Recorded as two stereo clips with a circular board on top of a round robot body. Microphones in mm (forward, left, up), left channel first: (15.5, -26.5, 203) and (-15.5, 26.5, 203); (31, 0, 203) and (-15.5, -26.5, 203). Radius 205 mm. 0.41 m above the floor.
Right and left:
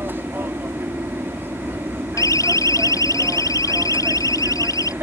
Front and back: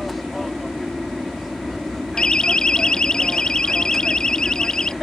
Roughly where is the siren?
Ahead right.